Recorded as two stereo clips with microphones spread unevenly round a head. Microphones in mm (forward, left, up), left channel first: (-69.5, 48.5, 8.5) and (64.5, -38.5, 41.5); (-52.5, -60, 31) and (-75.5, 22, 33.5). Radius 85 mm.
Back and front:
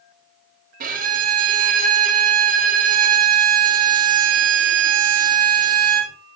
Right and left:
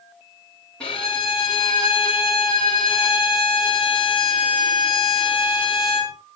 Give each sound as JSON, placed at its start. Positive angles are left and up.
{"t": 0.8, "sound": "a violin", "azimuth_deg": 5, "distance_m": 3.5}